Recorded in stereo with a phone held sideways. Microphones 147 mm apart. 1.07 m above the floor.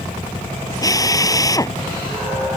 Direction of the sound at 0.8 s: 25° left (ahead or behind).